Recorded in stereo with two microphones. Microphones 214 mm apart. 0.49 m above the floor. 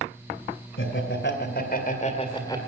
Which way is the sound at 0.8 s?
65° left (ahead or behind).